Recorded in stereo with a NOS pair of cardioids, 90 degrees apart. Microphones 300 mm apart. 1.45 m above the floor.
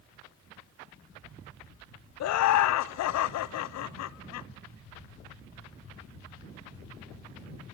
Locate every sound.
2.2 s laughter: 65° left, 0.7 m